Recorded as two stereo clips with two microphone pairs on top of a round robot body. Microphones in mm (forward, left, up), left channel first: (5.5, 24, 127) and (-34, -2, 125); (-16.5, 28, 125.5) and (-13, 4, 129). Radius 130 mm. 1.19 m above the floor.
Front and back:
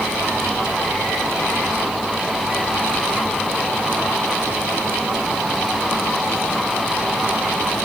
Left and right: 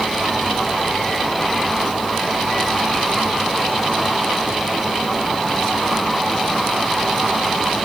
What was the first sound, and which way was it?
Only background noise.